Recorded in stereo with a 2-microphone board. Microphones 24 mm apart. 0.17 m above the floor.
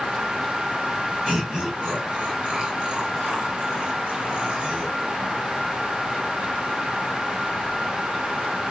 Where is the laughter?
30° right (ahead or behind), 1.7 m; by 5.0 s 50° right (ahead or behind), 3 m.